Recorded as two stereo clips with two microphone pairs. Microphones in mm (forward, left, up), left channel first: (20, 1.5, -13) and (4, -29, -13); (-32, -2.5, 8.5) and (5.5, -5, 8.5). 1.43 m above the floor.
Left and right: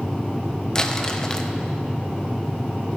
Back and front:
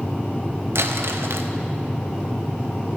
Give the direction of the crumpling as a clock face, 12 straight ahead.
12 o'clock.